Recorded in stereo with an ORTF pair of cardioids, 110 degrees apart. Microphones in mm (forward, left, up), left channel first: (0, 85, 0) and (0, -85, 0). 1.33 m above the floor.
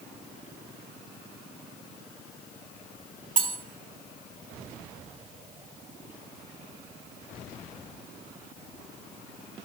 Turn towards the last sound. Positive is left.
turn(degrees=-50)